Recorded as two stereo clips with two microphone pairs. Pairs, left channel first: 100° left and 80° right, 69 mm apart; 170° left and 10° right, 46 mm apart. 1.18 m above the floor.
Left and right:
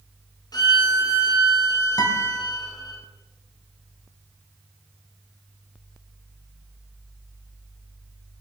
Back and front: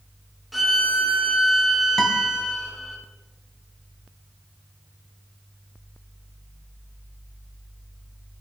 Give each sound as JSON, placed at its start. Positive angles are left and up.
{"t": 0.5, "sound": "a violin", "azimuth_deg": 80, "distance_m": 3.5}
{"t": 2.0, "sound": "a guitar", "azimuth_deg": 95, "distance_m": 2.5}